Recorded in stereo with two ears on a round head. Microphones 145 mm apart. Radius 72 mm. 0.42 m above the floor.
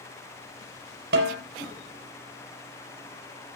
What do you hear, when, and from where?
1.1 s a snare drum: 75° right (ahead or behind), 4 m